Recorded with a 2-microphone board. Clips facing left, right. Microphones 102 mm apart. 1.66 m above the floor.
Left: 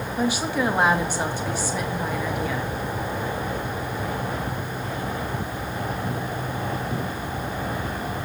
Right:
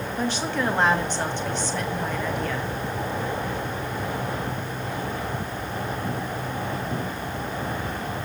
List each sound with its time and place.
0.2 s a woman speaking: 10° left (ahead or behind), 1.2 m